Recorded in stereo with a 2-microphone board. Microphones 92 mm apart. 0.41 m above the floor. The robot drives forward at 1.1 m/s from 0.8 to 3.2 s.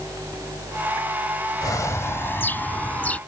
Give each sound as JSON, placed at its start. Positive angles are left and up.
{"t": 1.6, "sound": "a bird", "side_deg": 40}